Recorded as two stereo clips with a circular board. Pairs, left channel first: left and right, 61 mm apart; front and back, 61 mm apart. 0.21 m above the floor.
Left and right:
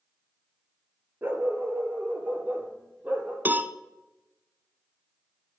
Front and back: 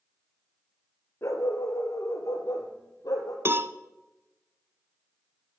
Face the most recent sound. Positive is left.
turn(degrees=-140)